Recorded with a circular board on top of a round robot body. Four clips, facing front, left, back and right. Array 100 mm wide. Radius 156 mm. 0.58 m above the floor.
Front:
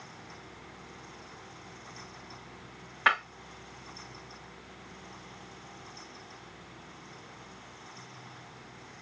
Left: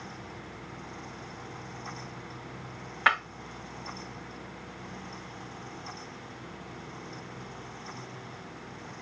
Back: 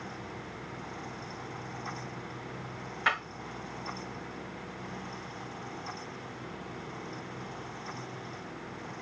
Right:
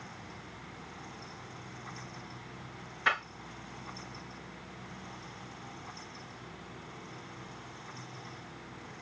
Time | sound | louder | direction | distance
3.1 | breaking glass | left 5 dB, front 4 dB | 65° left | 2.5 m